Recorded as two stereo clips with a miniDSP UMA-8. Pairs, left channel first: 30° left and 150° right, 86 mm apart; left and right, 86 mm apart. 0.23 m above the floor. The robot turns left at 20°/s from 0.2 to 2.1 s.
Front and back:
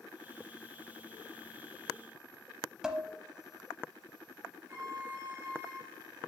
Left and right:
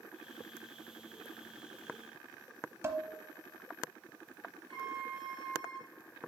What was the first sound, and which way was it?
Dishes clattering, 75° right.